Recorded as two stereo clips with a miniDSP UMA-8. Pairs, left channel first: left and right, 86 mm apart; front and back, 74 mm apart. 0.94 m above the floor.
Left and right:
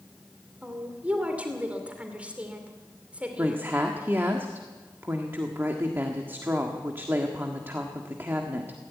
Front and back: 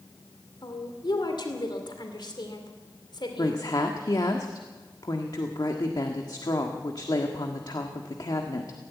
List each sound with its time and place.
0.6 s a woman speaking: 15° right, 2.5 m
3.4 s a woman speaking: 25° right, 1.6 m